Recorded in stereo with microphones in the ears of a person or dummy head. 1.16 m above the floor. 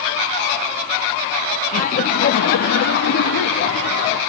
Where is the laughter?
50° left (ahead or behind), 1.1 m; by 4.2 s 65° left (ahead or behind), 2.5 m.